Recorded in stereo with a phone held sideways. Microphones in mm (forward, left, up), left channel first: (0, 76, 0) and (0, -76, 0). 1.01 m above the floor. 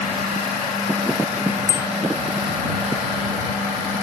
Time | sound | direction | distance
1.7 | a bicycle bell | 20° left (ahead or behind) | ?